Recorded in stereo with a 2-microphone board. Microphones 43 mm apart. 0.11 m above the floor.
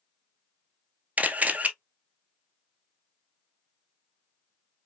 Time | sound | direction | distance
1.2 | a camera shutter | 35° right (ahead or behind) | 0.8 m